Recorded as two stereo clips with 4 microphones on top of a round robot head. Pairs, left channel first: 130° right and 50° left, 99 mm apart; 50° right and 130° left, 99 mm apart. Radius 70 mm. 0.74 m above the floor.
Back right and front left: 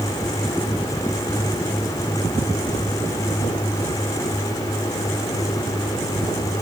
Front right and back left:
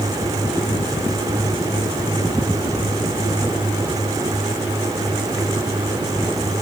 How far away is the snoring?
No snoring in this recording.